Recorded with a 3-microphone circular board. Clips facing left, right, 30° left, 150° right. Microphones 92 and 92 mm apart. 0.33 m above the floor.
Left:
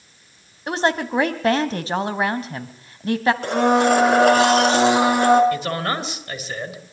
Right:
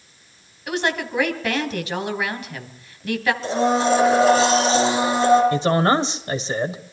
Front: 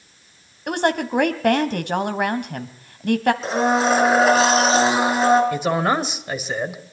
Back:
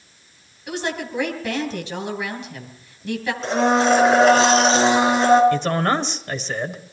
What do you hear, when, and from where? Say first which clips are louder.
0.7 s a woman speaking: left 3 dB, front 6 dB; 40° left, 1.9 m
3.4 s a blender: left 2 dB, back 1 dB; 115° left, 4 m
5.5 s a man speaking: right 6 dB, even; 45° right, 1.7 m